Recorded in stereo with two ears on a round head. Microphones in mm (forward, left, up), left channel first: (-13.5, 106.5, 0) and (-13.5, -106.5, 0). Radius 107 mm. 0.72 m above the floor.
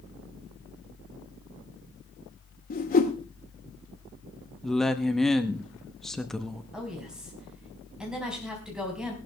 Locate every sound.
2.7 s a whoosh: 40° left (ahead or behind), 1.8 m
4.6 s a woman speaking: centre (ahead or behind), 0.9 m
6.7 s a woman speaking: 5° right (ahead or behind), 4.5 m